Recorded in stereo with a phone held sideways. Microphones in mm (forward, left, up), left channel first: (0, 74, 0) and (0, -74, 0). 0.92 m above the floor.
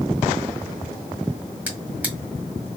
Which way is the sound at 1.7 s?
10° right (ahead or behind).